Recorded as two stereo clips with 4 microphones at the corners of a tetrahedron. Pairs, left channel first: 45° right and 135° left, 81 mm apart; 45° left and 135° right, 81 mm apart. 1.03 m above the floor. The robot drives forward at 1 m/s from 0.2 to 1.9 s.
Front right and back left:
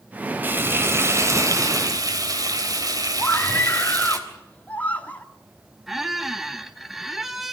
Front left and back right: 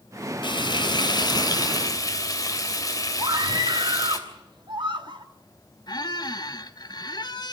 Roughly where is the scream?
Behind right.